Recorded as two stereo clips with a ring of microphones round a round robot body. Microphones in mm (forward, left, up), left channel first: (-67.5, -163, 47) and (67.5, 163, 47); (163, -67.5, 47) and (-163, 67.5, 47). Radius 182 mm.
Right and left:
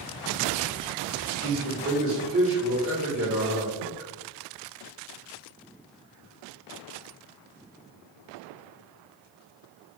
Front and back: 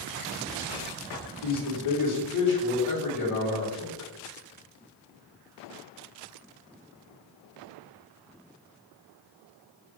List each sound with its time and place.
1.4 s a man speaking: 15° left, 1.7 m